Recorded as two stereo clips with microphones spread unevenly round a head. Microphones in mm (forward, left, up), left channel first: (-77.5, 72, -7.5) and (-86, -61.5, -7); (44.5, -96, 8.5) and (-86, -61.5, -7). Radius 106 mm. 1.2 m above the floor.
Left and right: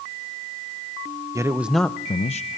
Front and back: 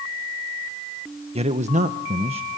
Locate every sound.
1.4 s a man speaking: 160° right, 1.1 m; by 2.6 s 105° left, 1.0 m